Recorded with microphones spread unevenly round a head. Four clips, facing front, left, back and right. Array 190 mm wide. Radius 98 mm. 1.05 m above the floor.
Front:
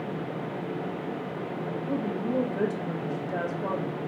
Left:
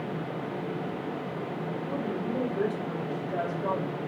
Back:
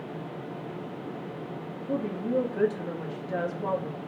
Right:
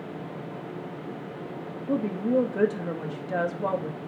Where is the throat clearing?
I don't hear throat clearing.